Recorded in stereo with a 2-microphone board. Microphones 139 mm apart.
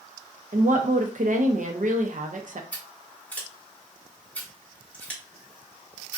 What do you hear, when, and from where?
0.5 s a woman speaking: 65° right (ahead or behind), 0.7 m
2.7 s scissors: 10° left (ahead or behind), 1.7 m